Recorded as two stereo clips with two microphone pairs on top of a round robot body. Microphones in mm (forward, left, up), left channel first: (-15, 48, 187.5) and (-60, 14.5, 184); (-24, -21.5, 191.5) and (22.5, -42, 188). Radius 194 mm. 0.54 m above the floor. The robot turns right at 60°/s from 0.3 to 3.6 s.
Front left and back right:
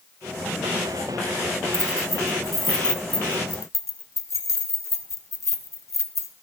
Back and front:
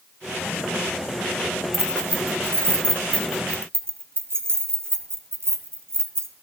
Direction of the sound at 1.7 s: 110° right.